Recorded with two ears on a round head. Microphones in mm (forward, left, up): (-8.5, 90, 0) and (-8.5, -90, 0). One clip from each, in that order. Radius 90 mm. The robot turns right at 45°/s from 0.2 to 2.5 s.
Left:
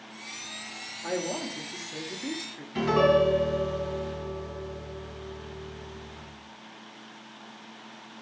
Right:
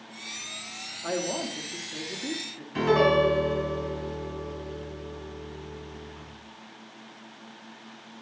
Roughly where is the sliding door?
I don't hear a sliding door.